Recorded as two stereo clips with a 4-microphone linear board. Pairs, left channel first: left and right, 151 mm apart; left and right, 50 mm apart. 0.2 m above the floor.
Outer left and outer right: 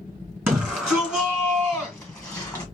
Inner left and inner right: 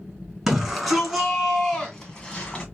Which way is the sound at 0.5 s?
10° right (ahead or behind).